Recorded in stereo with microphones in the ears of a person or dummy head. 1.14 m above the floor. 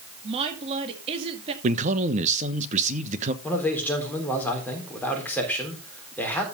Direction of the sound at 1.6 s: 40° right (ahead or behind).